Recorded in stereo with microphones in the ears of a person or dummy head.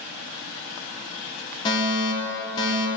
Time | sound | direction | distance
1.6 | a fire alarm | 20° left (ahead or behind) | 1.8 m